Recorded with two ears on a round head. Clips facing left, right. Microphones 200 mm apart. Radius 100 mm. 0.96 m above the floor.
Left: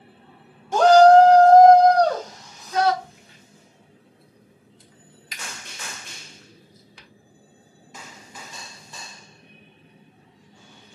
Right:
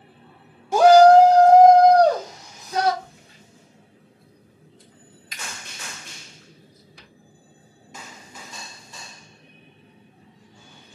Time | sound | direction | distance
0.7 | a shout | 10° right (ahead or behind) | 0.5 m
3.0 | a crack | 55° left (ahead or behind) | 1.8 m